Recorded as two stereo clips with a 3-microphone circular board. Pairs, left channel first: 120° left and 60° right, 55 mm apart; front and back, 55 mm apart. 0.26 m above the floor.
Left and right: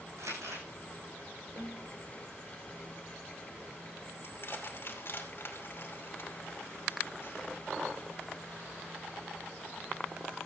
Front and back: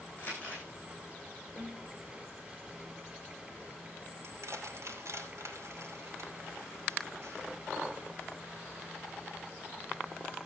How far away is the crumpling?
About 10 m.